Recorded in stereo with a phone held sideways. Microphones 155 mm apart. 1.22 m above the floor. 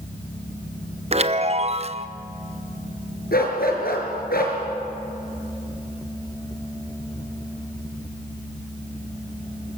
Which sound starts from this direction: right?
A chime, at 1.1 s.